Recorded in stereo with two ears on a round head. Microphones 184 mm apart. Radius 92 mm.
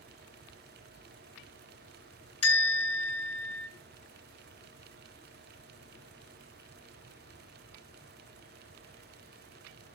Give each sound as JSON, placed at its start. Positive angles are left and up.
{"t": 2.4, "sound": "a bell", "side_deg": 30, "distance_m": 3.0}